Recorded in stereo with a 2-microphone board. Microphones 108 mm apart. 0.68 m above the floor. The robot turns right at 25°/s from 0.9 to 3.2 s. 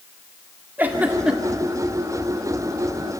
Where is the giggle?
15° right (ahead or behind), 1.8 m; by 1.6 s centre (ahead or behind), 1.8 m.